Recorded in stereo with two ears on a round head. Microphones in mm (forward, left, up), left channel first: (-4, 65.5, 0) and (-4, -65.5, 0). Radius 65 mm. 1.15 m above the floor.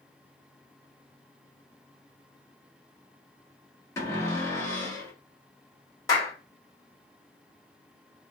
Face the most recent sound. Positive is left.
turn(degrees=25)  # may be behind; listen again after turning